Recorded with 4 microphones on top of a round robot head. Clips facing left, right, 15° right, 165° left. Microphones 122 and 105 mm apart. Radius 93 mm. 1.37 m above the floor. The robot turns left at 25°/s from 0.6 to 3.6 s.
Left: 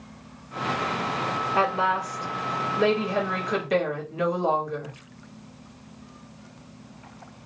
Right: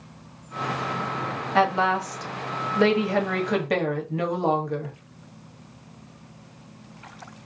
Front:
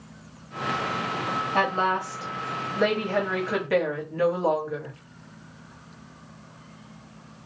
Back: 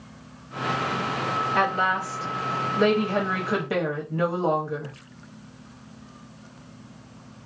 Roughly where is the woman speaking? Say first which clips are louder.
Right 3 dB, front 1 dB; right.